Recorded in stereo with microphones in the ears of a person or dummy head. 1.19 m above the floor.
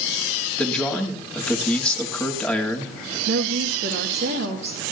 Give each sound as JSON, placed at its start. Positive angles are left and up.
{"t": 0.6, "sound": "a man speaking", "side_deg": 5, "distance_m": 2.0}
{"t": 3.3, "sound": "a woman speaking", "side_deg": -80, "distance_m": 2.5}